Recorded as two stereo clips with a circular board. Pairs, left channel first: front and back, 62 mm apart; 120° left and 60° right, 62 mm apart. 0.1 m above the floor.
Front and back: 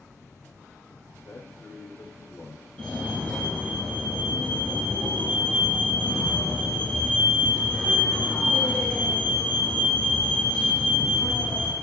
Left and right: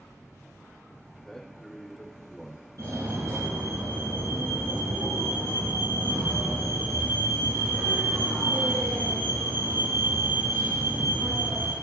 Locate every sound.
1.1 s a man speaking: 35° left, 6 m
2.8 s a fire alarm: 70° right, 5.5 m